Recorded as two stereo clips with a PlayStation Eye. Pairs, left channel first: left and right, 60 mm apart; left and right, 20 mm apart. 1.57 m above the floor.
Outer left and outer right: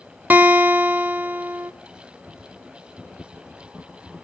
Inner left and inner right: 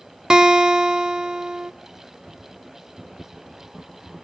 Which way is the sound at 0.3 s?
30° right (ahead or behind).